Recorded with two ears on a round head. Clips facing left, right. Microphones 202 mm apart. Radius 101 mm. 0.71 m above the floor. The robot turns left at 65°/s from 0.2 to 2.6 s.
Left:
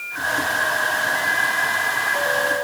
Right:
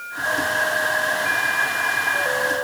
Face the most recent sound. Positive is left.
No sound to turn to.